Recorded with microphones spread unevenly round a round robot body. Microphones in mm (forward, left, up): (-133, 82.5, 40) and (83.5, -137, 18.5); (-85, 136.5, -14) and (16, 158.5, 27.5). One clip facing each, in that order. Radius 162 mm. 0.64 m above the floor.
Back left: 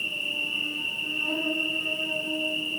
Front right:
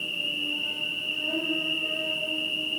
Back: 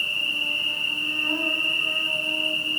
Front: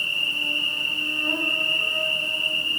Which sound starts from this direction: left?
An insect, at 0.0 s.